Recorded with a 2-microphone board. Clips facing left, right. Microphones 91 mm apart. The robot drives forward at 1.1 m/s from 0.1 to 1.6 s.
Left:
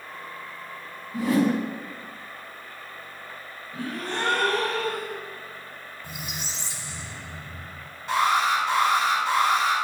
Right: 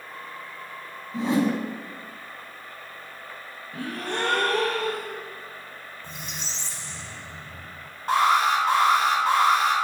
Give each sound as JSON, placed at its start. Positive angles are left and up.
{"t": 1.1, "sound": "a whoosh", "side_deg": -25, "distance_m": 1.3}
{"t": 3.7, "sound": "a gasp", "side_deg": -60, "distance_m": 3.0}
{"t": 6.0, "sound": "a squeak", "side_deg": 10, "distance_m": 0.9}
{"t": 8.1, "sound": "an alarm", "side_deg": -50, "distance_m": 3.0}